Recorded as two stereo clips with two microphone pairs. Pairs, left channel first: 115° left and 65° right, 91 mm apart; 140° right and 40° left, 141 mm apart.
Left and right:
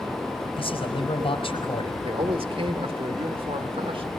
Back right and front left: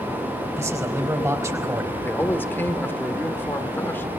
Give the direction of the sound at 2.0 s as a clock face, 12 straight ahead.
2 o'clock.